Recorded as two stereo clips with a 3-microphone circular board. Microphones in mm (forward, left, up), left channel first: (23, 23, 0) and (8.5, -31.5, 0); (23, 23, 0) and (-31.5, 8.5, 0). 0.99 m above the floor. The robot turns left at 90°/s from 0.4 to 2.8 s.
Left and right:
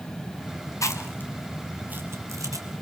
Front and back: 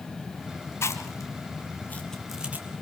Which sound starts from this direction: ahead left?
Chewing, at 0.8 s.